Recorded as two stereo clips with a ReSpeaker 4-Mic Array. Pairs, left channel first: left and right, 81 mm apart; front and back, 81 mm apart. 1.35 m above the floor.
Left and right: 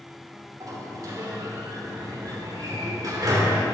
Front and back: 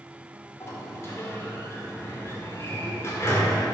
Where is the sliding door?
55° right, 2.0 m.